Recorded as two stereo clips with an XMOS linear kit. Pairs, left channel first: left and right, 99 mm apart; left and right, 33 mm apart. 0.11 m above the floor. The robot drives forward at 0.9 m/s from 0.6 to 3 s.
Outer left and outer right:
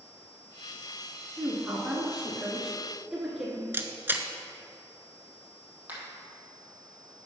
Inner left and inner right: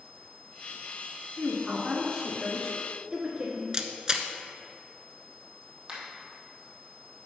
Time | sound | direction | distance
1.4 | a woman speaking | 10° right (ahead or behind) | 1.6 m
3.7 | a camera shutter | 25° right (ahead or behind) | 0.6 m
5.9 | a finger snap | 20° right (ahead or behind) | 2.5 m